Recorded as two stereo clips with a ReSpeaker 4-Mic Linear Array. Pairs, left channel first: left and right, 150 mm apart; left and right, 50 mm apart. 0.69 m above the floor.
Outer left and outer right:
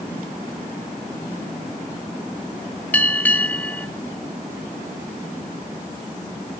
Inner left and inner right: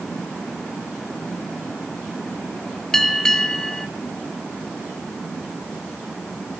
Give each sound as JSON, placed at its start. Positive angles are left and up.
{"t": 2.9, "sound": "a bell", "side_deg": 10, "distance_m": 1.3}